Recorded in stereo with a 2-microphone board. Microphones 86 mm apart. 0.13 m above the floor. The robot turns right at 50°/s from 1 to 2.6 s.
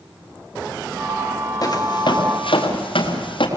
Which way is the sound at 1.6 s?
50° left (ahead or behind).